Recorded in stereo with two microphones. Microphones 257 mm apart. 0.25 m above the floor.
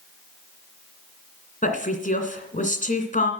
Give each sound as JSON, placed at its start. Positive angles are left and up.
{"t": 1.6, "sound": "a woman speaking", "side_deg": 30, "distance_m": 2.0}